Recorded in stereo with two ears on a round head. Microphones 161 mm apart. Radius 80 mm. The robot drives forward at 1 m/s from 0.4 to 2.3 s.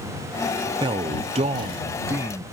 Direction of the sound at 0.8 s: 25° right (ahead or behind).